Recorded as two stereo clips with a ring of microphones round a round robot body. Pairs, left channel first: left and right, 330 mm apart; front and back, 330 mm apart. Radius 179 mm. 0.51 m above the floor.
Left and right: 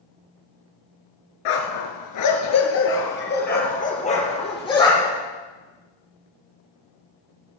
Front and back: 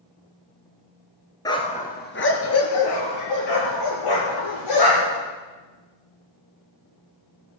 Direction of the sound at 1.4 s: 80° left.